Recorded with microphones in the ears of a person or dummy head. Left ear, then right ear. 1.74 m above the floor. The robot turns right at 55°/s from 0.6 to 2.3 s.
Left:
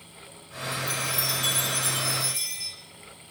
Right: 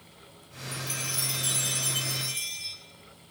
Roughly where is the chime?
Ahead.